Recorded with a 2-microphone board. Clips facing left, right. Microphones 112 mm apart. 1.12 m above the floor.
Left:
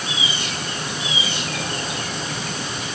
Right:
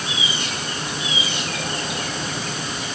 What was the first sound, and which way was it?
Only background noise.